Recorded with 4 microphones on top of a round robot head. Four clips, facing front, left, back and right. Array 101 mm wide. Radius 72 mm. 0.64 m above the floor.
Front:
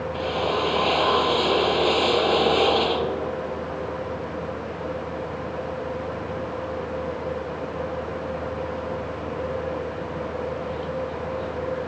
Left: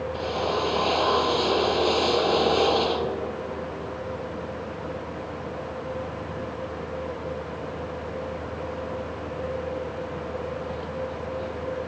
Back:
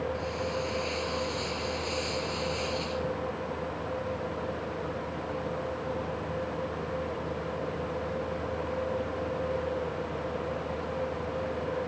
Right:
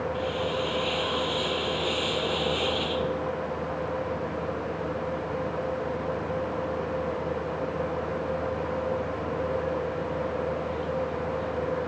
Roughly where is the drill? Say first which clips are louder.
Left 2 dB, front 8 dB; ahead left.